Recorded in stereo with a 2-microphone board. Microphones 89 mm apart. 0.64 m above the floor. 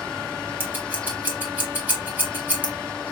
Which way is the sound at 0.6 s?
20° right (ahead or behind).